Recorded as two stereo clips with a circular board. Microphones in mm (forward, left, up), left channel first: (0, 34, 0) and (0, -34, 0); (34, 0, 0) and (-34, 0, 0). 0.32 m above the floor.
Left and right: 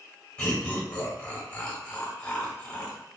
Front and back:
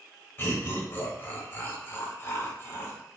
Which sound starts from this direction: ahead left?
Laughter, at 0.4 s.